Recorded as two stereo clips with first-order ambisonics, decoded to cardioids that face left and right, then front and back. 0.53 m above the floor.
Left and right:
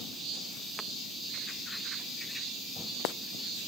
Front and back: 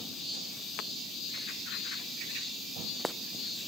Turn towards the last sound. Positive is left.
No sound to turn to.